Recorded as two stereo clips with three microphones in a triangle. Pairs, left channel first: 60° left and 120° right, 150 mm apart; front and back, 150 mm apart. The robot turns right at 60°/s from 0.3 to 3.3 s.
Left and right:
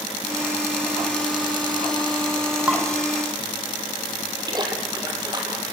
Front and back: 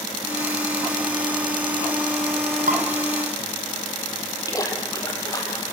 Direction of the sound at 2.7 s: 160° left.